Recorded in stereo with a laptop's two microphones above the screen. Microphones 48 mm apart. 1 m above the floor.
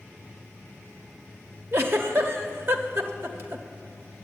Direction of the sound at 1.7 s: 50° right (ahead or behind).